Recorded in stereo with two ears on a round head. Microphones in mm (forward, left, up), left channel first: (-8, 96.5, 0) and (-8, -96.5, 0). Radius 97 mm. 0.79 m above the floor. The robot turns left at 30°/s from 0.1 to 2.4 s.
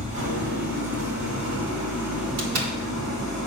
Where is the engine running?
35° right, 3 m; by 3.5 s 100° right, 3 m.